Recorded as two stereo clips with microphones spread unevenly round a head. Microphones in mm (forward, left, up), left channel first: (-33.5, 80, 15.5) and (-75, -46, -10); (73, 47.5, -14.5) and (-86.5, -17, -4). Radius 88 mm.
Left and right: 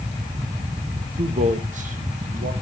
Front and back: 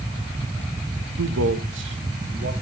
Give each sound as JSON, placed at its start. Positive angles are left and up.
{"t": 1.2, "sound": "a man speaking", "azimuth_deg": -150, "distance_m": 1.0}